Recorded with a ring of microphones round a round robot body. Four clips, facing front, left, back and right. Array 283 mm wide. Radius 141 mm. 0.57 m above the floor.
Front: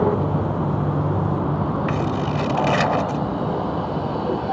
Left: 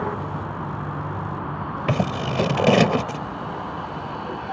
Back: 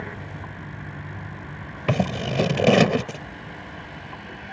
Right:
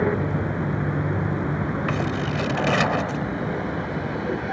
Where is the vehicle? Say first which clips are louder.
Right 4 dB, front 16 dB; 25° right.